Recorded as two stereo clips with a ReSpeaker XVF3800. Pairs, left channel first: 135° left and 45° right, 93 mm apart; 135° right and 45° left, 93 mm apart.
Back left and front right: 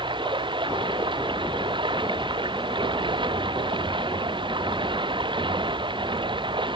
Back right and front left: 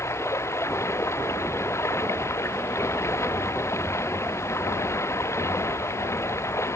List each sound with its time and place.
0.0 s running water: 75° right